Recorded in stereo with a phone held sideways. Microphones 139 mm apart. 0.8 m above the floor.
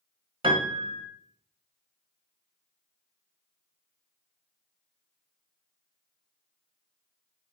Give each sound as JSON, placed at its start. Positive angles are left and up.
{"t": 0.4, "sound": "a piano", "side_deg": -40, "distance_m": 1.2}